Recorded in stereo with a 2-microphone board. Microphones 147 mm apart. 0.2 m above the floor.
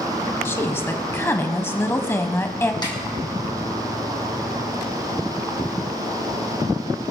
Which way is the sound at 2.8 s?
30° left (ahead or behind).